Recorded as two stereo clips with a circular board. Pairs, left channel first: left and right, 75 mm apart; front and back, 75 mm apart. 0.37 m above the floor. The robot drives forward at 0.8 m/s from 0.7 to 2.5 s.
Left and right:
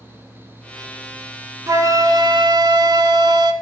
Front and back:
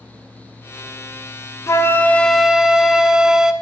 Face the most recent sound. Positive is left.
turn(degrees=-100)